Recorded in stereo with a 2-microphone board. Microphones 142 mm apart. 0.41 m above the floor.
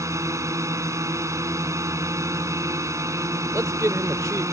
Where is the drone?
20° right (ahead or behind).